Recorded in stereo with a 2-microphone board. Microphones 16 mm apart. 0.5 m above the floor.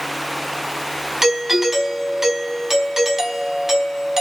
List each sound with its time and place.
1.2 s a doorbell: 25° right (ahead or behind), 4 m